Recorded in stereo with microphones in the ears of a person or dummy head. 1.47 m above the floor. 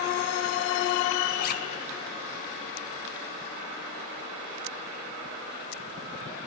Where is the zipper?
55° left (ahead or behind), 0.7 m.